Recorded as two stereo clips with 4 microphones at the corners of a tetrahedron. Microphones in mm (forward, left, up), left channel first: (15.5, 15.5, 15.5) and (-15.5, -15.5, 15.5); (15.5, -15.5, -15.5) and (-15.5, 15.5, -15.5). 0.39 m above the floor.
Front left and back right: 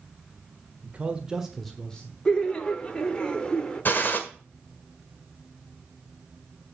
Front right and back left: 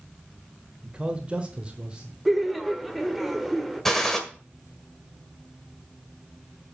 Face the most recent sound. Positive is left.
turn(degrees=35)